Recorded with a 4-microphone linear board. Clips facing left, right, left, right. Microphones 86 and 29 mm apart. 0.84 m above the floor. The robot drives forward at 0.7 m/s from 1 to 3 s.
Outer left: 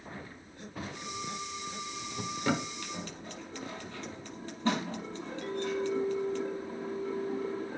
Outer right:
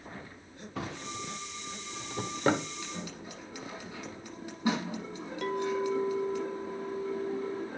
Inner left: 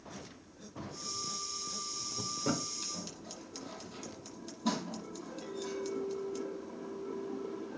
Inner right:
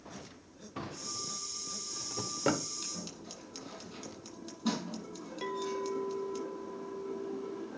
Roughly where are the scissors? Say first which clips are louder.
Even, even; centre.